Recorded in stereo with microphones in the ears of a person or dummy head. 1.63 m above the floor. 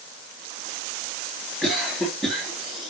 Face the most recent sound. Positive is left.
turn(degrees=5)  # may be behind; listen again after turning